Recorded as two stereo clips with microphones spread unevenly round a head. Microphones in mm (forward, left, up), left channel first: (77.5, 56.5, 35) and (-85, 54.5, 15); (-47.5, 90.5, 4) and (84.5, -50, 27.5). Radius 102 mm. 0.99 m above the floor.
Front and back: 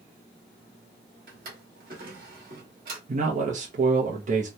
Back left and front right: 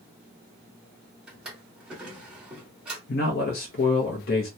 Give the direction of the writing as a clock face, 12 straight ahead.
I don't hear writing.